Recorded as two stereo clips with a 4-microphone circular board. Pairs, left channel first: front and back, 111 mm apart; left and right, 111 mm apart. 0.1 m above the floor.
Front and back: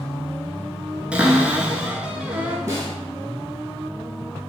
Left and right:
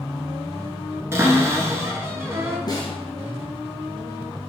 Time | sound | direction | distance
1.1 | a cupboard door | 115° right | 0.5 m
2.7 | a snare drum | 120° left | 1.2 m